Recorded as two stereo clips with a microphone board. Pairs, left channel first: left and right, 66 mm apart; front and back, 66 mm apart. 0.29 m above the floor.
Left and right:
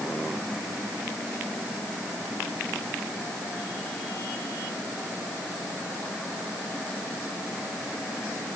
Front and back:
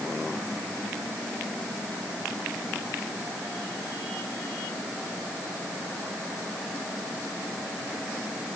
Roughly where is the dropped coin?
No dropped coin in this recording.